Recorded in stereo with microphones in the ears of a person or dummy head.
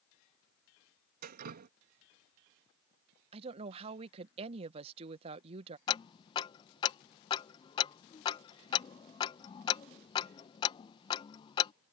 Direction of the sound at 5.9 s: 25° left (ahead or behind).